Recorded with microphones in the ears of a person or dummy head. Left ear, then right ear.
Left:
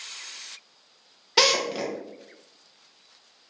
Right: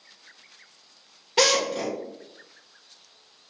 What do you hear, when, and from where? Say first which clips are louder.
1.4 s a drill: even; 40° left (ahead or behind), 1.2 m